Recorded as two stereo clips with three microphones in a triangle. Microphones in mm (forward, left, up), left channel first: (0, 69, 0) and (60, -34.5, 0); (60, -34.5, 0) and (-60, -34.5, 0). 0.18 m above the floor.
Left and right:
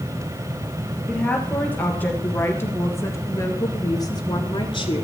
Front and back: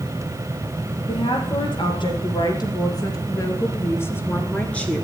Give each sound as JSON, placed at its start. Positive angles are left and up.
{"t": 1.1, "sound": "a woman speaking", "azimuth_deg": 40, "distance_m": 3.5}